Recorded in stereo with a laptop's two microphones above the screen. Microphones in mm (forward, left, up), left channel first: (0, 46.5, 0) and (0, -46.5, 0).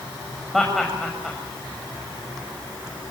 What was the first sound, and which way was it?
Laughter, 5° left (ahead or behind).